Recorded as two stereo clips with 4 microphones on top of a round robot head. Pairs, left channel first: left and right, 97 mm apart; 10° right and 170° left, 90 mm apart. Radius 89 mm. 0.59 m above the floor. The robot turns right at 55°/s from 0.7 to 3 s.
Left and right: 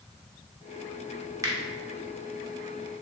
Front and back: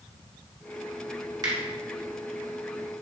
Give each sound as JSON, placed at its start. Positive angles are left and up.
{"t": 1.4, "sound": "a finger snap", "azimuth_deg": -145, "distance_m": 1.1}